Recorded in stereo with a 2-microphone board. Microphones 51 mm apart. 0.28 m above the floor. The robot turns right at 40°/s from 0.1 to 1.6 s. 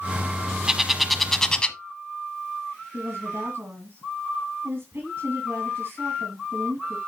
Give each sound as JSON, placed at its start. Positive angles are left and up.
{"t": 0.7, "sound": "a bird", "side_deg": -15, "distance_m": 0.9}
{"t": 2.9, "sound": "a woman speaking", "side_deg": -50, "distance_m": 3.0}